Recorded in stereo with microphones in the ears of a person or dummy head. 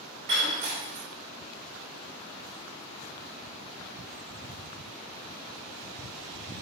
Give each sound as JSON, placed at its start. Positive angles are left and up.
{"t": 0.3, "sound": "breaking glass", "side_deg": -35, "distance_m": 1.1}